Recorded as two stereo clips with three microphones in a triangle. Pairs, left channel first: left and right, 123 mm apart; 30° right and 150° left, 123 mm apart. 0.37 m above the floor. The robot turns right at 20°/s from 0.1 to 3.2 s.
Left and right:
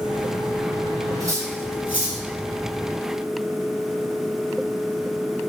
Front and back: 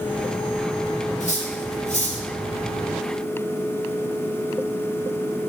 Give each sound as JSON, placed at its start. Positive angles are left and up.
{"t": 1.2, "sound": "cutlery clinking", "azimuth_deg": -25, "distance_m": 4.0}